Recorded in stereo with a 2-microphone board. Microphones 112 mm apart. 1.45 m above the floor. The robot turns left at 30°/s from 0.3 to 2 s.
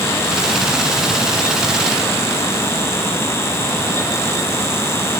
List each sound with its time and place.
Only background noise.